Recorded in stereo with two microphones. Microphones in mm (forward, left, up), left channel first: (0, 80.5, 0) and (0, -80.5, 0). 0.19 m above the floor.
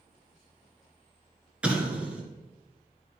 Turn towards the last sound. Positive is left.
turn(degrees=-5)  # may be behind; listen again after turning